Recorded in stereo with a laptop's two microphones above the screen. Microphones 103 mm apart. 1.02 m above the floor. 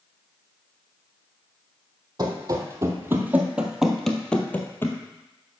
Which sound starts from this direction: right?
Running footsteps, at 2.2 s.